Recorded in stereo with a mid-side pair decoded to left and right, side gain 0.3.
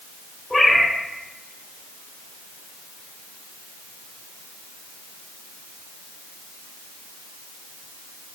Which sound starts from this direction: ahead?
A cat meowing, at 0.5 s.